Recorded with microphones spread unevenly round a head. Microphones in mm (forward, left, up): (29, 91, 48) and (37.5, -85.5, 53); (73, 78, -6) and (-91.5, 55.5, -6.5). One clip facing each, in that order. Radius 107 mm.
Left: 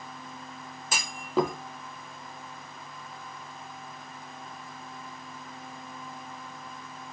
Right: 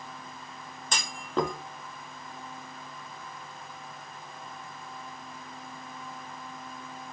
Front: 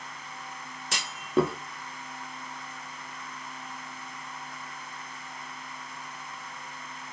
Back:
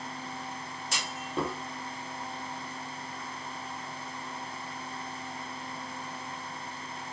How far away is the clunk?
About 0.6 m.